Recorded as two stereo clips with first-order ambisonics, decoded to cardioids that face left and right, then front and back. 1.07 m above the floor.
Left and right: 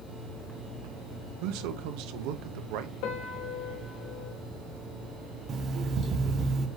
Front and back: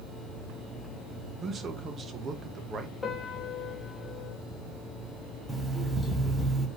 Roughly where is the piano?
Left.